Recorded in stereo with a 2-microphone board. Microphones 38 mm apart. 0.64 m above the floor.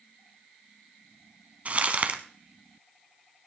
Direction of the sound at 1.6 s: 40° right (ahead or behind).